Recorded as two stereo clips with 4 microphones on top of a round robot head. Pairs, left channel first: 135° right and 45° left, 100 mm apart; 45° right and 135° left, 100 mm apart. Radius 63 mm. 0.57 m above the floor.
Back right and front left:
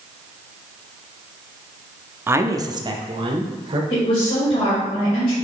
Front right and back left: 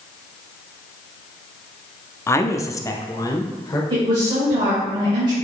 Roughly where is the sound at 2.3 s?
Ahead.